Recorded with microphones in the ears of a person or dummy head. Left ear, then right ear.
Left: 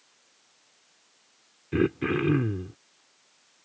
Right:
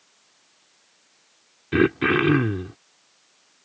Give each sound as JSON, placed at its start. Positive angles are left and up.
{"t": 1.7, "sound": "throat clearing", "side_deg": -35}